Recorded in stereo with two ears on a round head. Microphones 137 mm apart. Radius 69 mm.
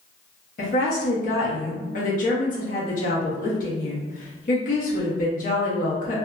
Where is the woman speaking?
55° left (ahead or behind), 1.1 m.